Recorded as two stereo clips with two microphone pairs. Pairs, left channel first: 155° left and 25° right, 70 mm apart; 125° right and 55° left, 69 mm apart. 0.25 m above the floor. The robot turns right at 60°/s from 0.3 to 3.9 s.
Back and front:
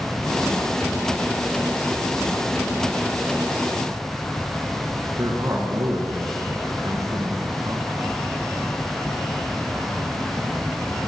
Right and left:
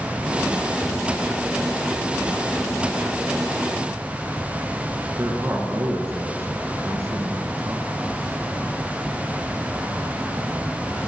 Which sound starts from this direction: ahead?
A man speaking, at 5.2 s.